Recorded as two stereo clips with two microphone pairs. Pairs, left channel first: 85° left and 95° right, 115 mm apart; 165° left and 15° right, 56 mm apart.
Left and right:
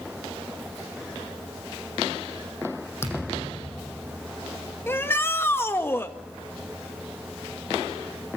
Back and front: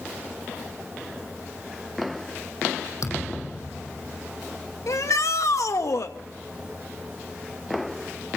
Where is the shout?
155° left, 2 m.